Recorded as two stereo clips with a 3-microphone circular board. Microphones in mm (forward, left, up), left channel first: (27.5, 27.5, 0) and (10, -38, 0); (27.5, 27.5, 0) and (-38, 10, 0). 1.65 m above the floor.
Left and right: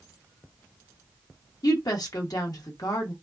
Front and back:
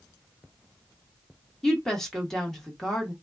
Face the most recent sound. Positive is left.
turn(degrees=100)